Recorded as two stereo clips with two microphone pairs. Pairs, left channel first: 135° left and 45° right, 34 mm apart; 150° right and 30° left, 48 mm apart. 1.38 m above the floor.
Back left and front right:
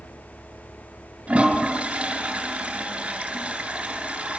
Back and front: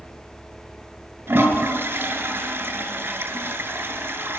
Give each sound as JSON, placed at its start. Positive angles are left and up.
{"t": 1.3, "sound": "a toilet flushing", "azimuth_deg": -5, "distance_m": 3.0}